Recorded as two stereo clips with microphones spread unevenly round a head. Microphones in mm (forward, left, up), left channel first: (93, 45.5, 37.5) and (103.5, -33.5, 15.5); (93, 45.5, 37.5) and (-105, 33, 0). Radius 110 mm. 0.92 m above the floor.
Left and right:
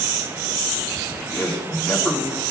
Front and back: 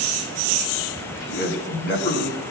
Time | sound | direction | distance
1.0 | a man speaking | 40° left | 7.5 m